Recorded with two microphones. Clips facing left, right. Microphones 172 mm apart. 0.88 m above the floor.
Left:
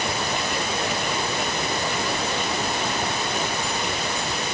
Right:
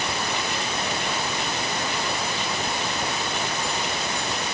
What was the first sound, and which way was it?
Only background noise.